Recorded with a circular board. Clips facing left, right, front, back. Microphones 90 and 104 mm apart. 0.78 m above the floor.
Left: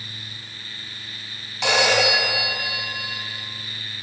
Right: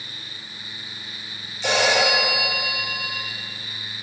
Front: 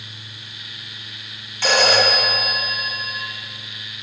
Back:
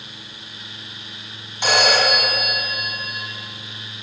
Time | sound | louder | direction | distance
1.6 | a phone ringing | even, front 1 dB | 110° left | 3 m